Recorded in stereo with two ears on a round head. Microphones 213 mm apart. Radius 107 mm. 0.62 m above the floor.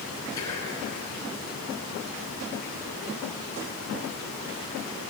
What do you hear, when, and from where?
0.4 s whispering: 15° left (ahead or behind), 6 m